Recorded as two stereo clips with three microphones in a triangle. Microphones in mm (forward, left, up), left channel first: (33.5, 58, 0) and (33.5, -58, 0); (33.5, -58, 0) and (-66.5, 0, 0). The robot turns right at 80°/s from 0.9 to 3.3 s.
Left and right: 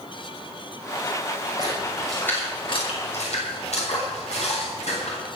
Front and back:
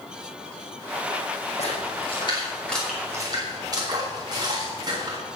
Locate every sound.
1.6 s a splash: 40° right, 6.5 m; by 5.2 s 100° left, 6.5 m